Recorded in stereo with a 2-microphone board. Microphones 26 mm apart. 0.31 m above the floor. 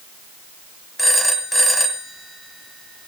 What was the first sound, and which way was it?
A phone ringing, centre (ahead or behind).